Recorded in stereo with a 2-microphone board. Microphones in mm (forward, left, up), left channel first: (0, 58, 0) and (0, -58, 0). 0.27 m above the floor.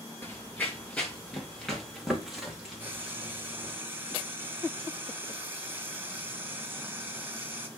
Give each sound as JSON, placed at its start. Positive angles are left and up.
{"t": 0.2, "sound": "running footsteps", "side_deg": 20, "distance_m": 1.6}
{"t": 2.8, "sound": "frying", "side_deg": -20, "distance_m": 1.4}